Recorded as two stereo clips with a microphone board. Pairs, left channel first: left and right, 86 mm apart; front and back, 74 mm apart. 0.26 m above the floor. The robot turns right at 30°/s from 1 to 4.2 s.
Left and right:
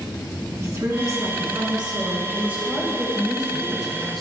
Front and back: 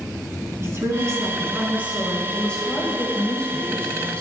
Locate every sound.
0.6 s a woman speaking: 135° right, 2.5 m; by 2.2 s 100° right, 2.5 m
2.3 s a woman speaking: 55° right, 1.4 m; by 4.2 s 5° left, 1.4 m